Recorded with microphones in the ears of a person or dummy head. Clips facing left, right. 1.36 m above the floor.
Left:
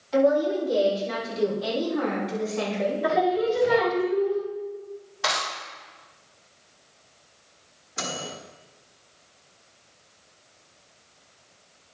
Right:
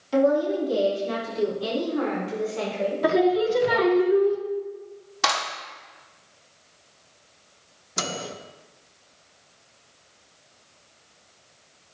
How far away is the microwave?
About 1.4 m.